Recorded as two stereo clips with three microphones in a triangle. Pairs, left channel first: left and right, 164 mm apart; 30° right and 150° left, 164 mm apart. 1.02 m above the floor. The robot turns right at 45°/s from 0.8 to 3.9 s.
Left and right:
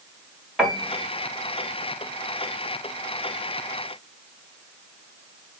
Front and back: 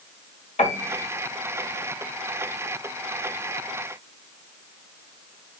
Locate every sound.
0.6 s a piano: 5° right, 1.0 m; by 1.1 s 5° left, 1.0 m